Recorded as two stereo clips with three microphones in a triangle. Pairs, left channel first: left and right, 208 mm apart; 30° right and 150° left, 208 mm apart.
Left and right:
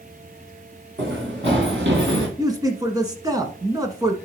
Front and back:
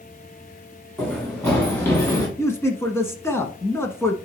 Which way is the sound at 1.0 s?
115° right.